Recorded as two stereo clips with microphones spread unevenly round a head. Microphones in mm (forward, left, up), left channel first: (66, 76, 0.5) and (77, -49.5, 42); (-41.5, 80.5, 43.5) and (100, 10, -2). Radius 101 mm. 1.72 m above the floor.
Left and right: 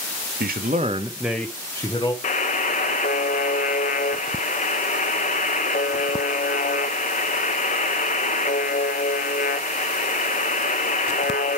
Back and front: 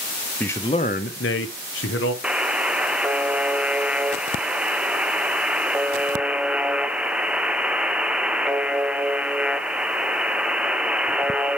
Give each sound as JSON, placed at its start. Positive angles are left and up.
{"t": 0.4, "sound": "a man speaking", "azimuth_deg": -125, "distance_m": 0.7}
{"t": 2.2, "sound": "a buzzer", "azimuth_deg": 70, "distance_m": 0.7}